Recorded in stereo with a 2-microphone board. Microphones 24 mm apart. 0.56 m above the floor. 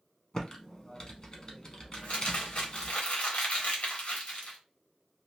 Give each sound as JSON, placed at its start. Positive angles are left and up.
{"t": 0.3, "sound": "typing on a keyboard", "side_deg": 35, "distance_m": 0.9}
{"t": 1.9, "sound": "crumpling", "side_deg": 70, "distance_m": 1.3}